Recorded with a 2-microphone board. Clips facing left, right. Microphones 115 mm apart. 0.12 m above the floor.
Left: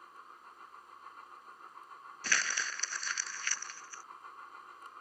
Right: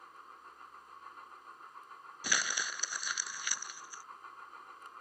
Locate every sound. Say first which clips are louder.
2.2 s crumpling: even; 15° right (ahead or behind)